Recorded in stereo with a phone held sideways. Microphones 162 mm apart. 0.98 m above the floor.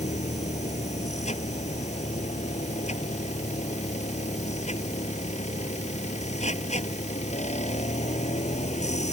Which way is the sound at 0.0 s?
40° left (ahead or behind).